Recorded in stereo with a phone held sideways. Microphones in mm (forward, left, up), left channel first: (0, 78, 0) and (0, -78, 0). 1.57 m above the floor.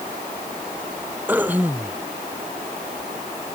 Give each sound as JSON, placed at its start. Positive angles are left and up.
{"t": 1.3, "sound": "throat clearing", "side_deg": -10}